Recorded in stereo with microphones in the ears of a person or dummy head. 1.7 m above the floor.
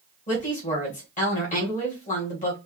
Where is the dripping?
I don't hear dripping.